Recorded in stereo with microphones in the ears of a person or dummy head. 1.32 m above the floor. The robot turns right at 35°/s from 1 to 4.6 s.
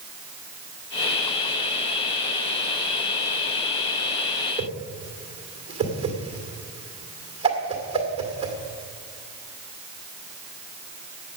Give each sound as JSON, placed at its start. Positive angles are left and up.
{"t": 4.6, "sound": "a whoosh", "side_deg": -25, "distance_m": 1.9}